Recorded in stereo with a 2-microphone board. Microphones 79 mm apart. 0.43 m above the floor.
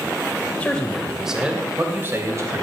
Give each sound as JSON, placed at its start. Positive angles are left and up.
{"t": 0.6, "sound": "a man speaking", "side_deg": 15, "distance_m": 2.0}